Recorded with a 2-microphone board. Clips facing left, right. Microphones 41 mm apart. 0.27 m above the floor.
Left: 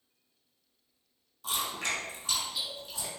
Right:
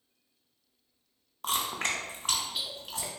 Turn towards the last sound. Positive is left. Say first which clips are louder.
# right 2 dB
turn(degrees=-65)  # may be behind; listen again after turning